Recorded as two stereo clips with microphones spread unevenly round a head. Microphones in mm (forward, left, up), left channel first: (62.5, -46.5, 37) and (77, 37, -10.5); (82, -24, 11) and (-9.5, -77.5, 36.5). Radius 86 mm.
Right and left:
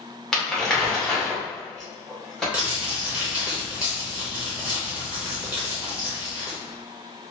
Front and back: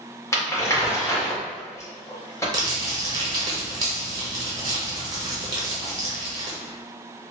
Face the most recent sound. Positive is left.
turn(degrees=-170)